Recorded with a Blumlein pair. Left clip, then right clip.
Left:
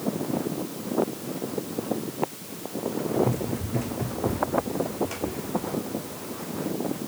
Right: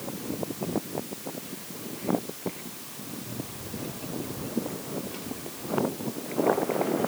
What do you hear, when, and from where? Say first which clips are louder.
3.2 s running footsteps: left 12 dB; 50° left, 4 m; by 6.7 s 25° left, 4 m